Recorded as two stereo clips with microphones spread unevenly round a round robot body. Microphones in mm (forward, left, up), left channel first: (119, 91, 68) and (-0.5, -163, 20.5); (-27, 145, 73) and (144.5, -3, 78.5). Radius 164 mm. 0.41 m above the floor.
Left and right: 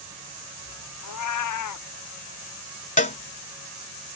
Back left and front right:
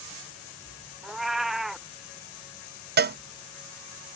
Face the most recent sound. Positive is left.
turn(degrees=0)